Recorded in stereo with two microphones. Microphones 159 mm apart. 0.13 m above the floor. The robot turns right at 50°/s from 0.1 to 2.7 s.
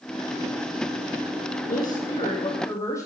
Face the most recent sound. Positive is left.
turn(degrees=160)